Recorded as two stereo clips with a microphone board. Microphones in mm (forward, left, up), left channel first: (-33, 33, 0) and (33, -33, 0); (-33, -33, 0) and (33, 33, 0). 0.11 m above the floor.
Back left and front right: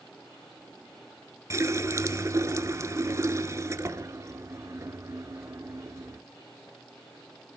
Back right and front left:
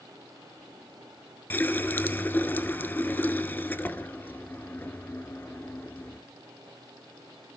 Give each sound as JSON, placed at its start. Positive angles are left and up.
{"t": 1.5, "sound": "a running tap", "azimuth_deg": -75, "distance_m": 1.0}